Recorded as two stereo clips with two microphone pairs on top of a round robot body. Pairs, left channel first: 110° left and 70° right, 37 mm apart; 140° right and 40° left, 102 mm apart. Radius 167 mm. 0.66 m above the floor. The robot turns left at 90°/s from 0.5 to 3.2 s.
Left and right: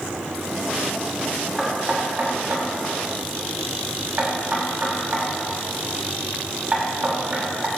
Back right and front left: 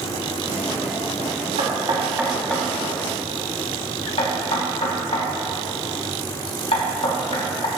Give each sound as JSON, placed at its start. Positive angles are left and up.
{"t": 1.6, "sound": "knocking", "azimuth_deg": 20, "distance_m": 5.0}